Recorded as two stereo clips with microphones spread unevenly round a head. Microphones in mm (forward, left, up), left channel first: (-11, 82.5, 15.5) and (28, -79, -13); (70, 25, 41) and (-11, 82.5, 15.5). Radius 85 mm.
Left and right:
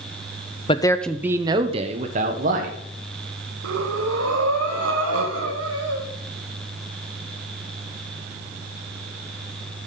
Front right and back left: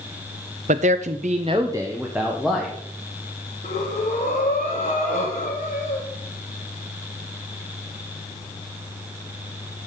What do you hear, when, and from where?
0.7 s a man speaking: 155° left, 0.6 m; by 2.8 s 120° right, 1.5 m
3.6 s breathing: 80° right, 1.6 m